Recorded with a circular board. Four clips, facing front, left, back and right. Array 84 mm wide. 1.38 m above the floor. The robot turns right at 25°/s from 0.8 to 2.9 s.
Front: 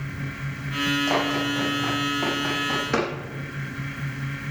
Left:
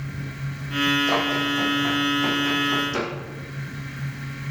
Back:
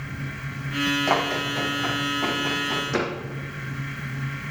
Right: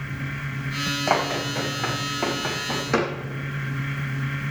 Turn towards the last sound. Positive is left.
turn(degrees=-60)